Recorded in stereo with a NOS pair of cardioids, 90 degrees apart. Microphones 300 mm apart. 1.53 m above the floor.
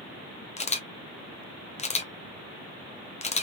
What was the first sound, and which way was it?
A camera shutter, 20° left.